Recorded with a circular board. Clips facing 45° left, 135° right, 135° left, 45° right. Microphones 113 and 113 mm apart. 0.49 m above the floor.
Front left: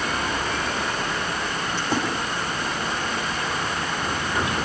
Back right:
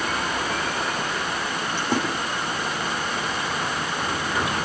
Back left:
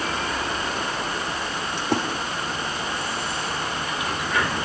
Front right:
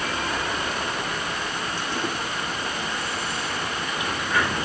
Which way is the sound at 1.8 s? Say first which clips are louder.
Back right 1 dB, back left 10 dB; 155° left.